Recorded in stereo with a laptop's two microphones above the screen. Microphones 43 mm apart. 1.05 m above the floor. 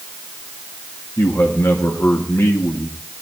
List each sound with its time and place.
1.2 s a man speaking: 75° left (ahead or behind), 1.8 m